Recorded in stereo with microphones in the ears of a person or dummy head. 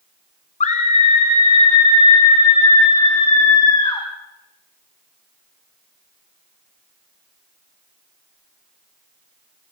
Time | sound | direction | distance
0.6 | a scream | 35° left (ahead or behind) | 1.0 m